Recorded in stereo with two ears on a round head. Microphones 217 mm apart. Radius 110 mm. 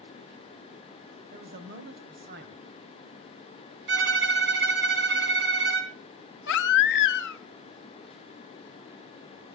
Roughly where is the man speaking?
Right.